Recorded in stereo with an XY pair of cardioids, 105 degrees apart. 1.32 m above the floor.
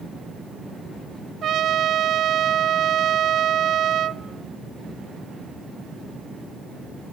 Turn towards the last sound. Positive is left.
turn(degrees=-60)